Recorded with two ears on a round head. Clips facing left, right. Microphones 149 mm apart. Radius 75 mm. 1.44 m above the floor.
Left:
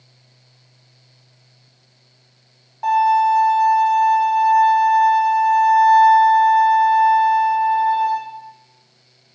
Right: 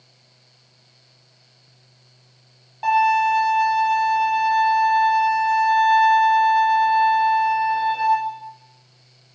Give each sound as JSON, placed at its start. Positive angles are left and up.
{"t": 2.8, "sound": "a violin", "side_deg": -35, "distance_m": 1.2}